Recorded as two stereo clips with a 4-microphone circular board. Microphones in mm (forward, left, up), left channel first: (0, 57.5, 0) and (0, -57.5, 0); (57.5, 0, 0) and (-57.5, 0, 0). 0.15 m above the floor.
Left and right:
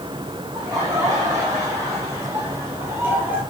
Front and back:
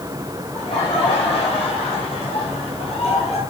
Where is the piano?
I don't hear a piano.